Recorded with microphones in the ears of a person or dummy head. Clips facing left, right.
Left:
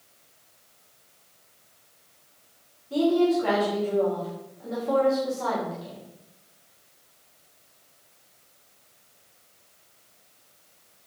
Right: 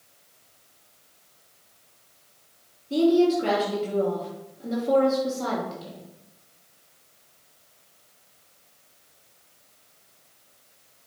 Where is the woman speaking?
35° right (ahead or behind), 2.5 m.